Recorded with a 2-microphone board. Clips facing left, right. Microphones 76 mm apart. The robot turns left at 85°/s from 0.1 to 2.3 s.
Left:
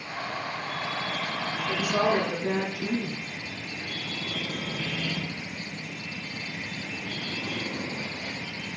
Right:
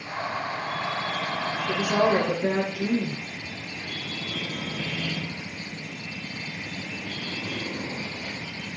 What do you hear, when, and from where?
1.7 s a woman speaking: 40° right, 3.5 m; by 3.2 s 95° right, 3.5 m